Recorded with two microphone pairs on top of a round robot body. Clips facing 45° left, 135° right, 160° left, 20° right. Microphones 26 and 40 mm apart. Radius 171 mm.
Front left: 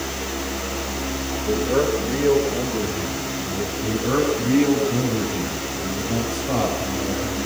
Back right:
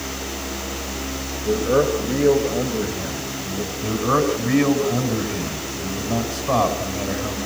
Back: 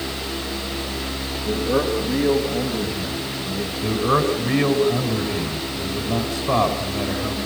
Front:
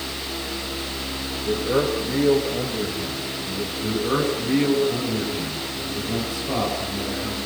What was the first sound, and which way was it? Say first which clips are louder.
A man speaking: back right 2 dB, back 1 dB; 110° right.